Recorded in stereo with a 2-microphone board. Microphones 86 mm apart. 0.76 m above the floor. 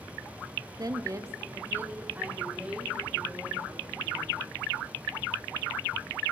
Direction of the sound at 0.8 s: 45° right (ahead or behind).